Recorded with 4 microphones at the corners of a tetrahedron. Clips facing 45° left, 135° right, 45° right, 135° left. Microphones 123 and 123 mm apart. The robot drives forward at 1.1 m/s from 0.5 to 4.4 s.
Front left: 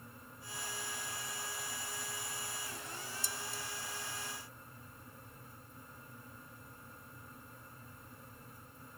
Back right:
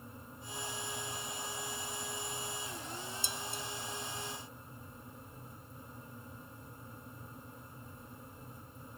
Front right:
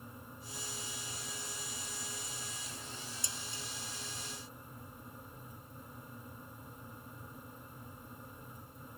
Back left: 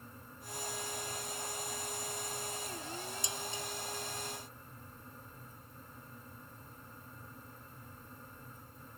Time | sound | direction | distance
3.2 | dishes clattering | 155° right | ?